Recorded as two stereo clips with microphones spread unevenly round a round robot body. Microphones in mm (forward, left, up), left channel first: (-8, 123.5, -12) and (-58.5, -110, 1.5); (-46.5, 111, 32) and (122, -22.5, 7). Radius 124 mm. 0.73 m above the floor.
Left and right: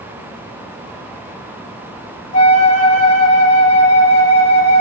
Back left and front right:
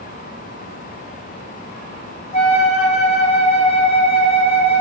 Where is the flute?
90° left, 1.2 m.